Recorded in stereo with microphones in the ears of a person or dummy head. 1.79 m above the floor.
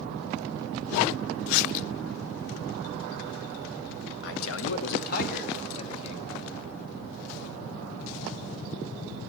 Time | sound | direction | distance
4.2 | a man speaking | 65° left (ahead or behind) | 0.9 m